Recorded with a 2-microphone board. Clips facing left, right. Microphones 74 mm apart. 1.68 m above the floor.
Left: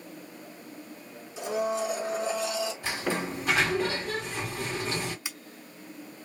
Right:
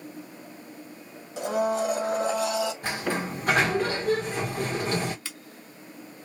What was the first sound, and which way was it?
A blender, 65° right (ahead or behind).